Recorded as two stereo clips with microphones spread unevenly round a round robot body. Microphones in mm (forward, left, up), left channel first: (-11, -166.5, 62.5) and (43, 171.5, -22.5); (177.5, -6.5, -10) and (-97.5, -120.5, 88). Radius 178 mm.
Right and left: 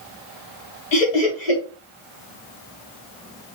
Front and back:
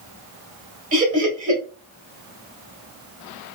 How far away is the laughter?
About 2.5 m.